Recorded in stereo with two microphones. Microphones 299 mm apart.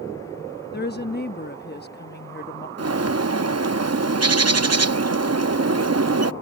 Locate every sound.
0.7 s a woman speaking: 35° left (ahead or behind)
2.8 s a bird: 55° right (ahead or behind)